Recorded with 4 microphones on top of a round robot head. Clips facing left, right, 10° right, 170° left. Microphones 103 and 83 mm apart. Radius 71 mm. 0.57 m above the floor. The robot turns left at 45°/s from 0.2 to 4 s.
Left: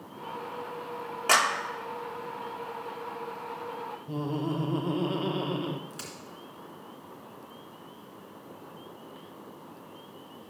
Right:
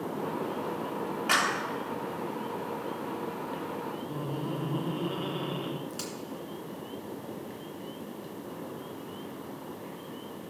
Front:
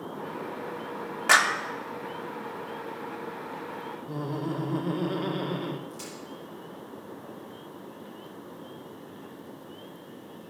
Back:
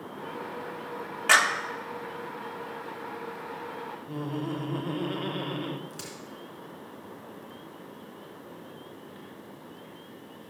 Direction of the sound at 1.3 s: 55° left.